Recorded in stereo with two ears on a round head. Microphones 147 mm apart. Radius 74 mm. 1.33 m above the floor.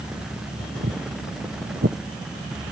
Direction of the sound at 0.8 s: 60° right (ahead or behind).